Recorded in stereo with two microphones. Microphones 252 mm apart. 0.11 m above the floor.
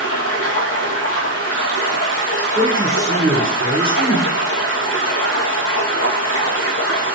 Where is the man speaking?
20° right (ahead or behind), 1.8 m.